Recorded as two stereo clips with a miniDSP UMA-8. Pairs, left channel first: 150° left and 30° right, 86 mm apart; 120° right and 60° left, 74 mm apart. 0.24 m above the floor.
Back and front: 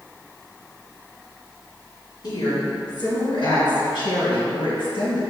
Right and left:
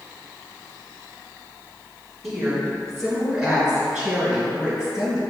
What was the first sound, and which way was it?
A woman speaking, 155° left.